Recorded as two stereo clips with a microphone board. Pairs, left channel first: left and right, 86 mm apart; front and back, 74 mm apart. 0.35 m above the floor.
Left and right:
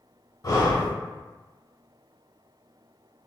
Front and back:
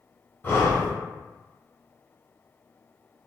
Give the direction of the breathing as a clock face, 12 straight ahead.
10 o'clock.